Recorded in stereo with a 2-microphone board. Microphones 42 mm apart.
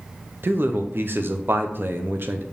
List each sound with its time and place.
0.4 s a man speaking: 60° right (ahead or behind), 0.9 m